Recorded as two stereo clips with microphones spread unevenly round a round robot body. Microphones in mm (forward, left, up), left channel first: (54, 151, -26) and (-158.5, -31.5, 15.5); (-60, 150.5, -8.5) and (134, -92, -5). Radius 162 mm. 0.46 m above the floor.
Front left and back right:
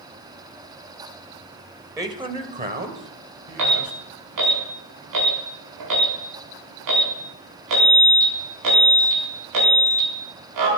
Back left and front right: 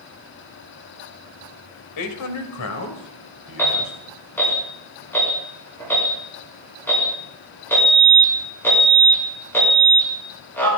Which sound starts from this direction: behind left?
A man speaking, at 2.0 s.